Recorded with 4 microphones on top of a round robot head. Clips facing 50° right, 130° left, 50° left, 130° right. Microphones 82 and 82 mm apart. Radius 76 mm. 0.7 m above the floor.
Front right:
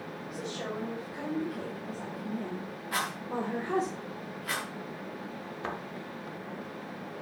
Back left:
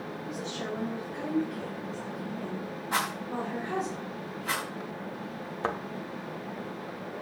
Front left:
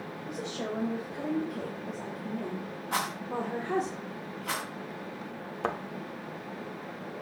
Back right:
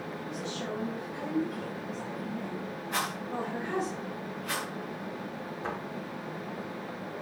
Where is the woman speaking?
35° left, 4.5 m; by 3.9 s 5° left, 2.5 m.